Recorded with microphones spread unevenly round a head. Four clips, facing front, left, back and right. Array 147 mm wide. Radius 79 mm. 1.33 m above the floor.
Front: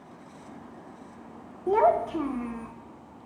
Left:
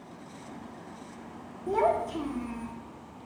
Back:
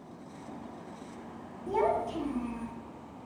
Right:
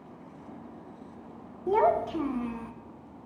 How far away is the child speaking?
About 1.4 m.